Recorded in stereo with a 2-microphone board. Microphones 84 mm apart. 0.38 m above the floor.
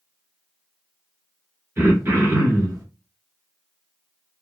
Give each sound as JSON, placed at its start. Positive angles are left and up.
{"t": 1.8, "sound": "throat clearing", "side_deg": -35, "distance_m": 1.3}